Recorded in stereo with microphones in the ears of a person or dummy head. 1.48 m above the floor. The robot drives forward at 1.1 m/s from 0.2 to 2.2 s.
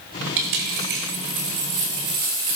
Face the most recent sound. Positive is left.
turn(degrees=-45)  # may be behind; listen again after turning